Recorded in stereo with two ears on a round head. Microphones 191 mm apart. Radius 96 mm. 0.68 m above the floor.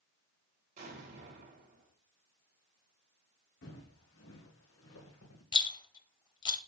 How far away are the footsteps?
About 3 m.